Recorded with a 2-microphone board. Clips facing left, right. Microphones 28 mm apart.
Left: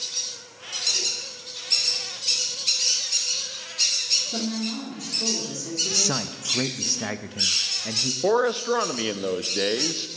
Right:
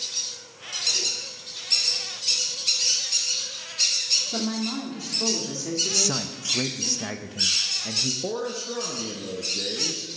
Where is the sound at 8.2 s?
60° left (ahead or behind), 0.7 m.